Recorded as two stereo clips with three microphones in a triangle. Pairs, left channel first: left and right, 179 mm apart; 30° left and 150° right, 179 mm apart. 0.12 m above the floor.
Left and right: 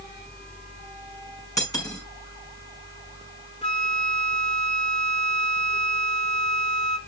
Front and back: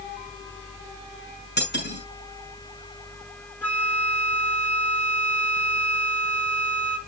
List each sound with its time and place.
1.6 s cutlery clinking: 20° left, 6 m
3.6 s a flute: 100° left, 1.7 m